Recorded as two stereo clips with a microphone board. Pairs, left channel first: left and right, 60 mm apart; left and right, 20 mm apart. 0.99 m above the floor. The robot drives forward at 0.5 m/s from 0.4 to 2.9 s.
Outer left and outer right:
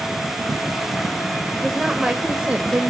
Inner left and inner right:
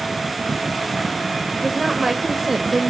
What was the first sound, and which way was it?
A woman speaking, 10° right (ahead or behind).